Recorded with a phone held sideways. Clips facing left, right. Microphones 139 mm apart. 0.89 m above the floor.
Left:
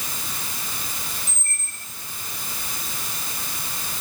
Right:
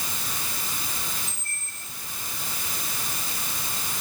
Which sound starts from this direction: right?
A squeak, at 1.3 s.